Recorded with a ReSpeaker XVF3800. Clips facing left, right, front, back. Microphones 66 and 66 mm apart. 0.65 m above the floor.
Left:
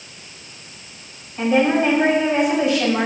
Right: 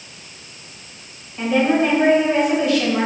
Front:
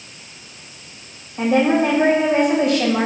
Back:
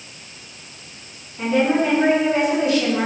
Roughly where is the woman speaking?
Ahead.